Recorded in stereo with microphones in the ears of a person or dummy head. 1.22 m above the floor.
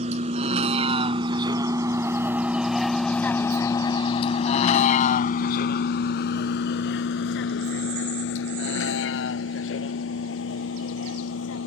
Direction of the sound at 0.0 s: 40° right (ahead or behind).